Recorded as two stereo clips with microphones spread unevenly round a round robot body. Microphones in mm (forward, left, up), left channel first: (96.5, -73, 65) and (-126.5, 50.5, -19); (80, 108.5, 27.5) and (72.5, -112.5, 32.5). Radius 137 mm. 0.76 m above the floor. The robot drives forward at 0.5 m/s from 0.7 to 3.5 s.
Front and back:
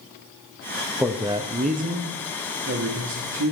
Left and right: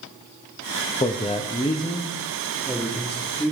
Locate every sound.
1.0 s a man speaking: 110° left, 0.6 m; by 3.5 s 170° left, 1.4 m